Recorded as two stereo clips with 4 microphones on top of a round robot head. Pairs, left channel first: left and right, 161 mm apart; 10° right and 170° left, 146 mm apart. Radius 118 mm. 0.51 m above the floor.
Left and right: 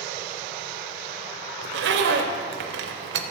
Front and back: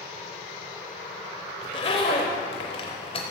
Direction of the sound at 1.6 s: 75° right.